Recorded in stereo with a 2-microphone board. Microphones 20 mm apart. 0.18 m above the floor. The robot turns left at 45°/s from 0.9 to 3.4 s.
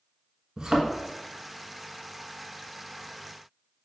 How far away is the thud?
About 1.0 m.